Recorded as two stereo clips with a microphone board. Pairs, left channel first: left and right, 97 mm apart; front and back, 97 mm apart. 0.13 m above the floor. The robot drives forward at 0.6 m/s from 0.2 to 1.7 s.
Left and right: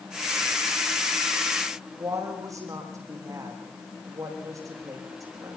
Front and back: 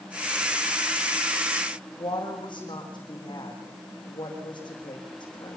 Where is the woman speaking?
35° right, 8 m.